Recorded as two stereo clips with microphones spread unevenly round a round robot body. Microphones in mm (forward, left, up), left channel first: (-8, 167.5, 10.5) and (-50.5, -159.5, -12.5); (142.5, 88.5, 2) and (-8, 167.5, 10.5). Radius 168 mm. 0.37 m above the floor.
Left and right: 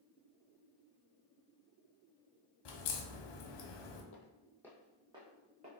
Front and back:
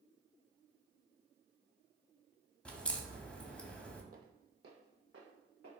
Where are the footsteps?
125° left, 0.6 m; by 5.7 s 165° right, 1.5 m.